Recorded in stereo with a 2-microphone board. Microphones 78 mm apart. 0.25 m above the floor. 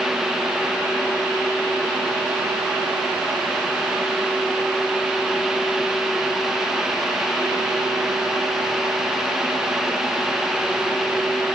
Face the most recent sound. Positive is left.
No sound to turn to.